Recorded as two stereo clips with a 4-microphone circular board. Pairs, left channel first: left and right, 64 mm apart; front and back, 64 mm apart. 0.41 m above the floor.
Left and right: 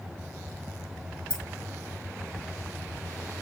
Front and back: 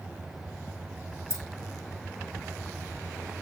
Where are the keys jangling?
20° left, 1.5 m.